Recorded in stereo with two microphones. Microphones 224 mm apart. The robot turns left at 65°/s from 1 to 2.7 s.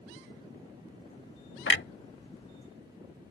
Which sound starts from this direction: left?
A clunk, at 1.7 s.